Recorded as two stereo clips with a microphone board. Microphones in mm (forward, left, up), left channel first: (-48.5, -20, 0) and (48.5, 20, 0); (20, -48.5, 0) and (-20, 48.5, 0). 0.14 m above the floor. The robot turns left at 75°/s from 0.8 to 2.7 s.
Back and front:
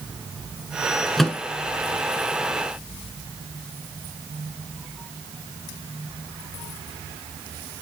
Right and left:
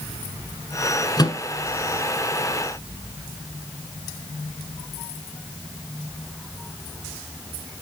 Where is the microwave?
70° right, 1.0 m; by 1.4 s 85° right, 1.0 m.